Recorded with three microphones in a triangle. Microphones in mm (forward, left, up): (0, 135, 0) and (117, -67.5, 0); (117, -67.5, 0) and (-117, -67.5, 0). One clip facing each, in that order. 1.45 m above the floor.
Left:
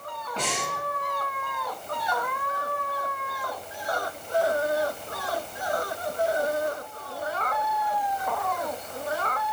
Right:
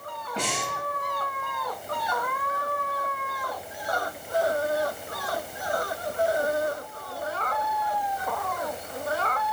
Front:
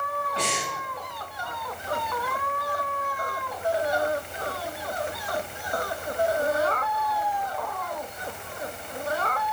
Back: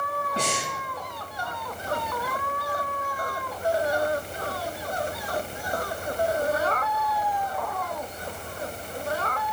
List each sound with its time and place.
0.4 s breathing: 135° right, 5.5 m